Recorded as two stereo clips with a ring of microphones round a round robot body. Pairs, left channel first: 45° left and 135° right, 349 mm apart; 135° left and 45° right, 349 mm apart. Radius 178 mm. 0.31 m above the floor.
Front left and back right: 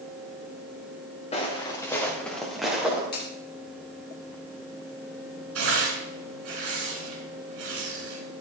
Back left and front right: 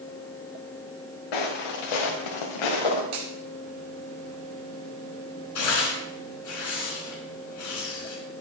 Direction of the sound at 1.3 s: 120° left.